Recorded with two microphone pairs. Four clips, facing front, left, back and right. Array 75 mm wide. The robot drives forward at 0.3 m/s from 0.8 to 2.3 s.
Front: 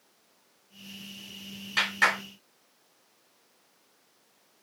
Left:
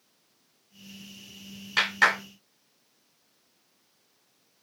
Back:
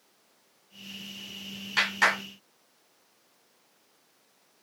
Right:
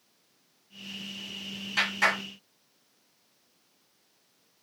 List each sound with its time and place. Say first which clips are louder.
1.8 s a clap: left 3 dB, back 1 dB; 95° left, 1.5 m; by 2.2 s 105° left, 1.5 m